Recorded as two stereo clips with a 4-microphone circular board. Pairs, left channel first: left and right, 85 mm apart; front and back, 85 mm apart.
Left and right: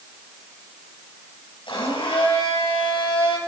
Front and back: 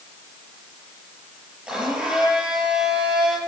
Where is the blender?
95° left, 8 m.